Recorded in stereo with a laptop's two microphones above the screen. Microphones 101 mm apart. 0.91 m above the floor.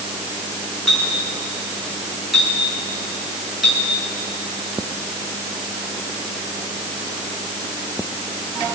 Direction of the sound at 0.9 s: Centre (ahead or behind).